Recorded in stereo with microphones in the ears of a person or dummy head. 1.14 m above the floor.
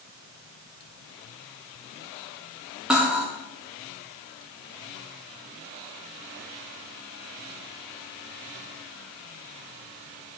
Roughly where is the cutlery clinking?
Centre.